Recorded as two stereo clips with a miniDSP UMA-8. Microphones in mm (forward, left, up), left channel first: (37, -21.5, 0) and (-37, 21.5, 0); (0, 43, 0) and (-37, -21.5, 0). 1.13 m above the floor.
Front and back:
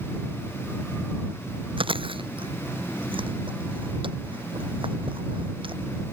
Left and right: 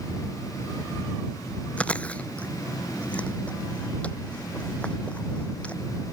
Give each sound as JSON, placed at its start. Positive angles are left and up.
{"t": 1.8, "sound": "chewing", "azimuth_deg": 135}